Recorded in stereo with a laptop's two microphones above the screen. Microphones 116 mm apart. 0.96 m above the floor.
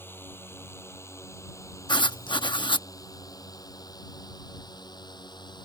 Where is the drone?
20° left (ahead or behind); by 5.7 s 40° left (ahead or behind).